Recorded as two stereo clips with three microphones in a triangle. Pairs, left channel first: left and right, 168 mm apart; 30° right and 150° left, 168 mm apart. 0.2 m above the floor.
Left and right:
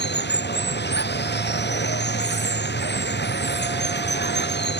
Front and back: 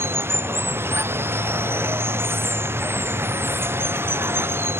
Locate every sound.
0.0 s running water: 70° left